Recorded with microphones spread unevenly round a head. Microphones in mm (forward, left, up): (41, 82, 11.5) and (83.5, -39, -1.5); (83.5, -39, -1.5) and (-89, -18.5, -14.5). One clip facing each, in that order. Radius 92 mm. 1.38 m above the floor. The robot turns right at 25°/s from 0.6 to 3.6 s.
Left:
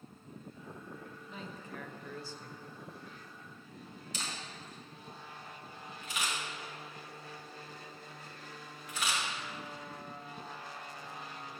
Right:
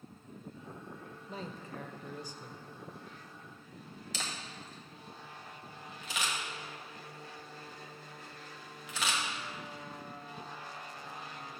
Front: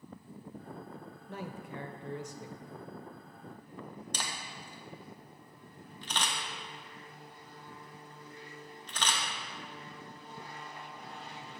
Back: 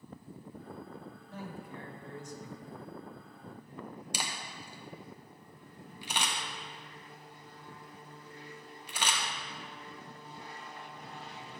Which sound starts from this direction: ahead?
A man speaking, at 1.3 s.